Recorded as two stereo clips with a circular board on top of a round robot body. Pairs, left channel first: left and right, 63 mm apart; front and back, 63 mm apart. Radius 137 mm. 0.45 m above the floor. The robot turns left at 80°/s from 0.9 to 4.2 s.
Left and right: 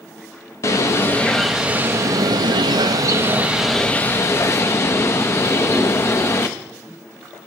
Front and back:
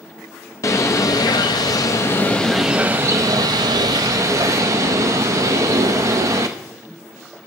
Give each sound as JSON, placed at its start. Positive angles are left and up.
{"t": 0.6, "sound": "a bird", "azimuth_deg": 45, "distance_m": 0.5}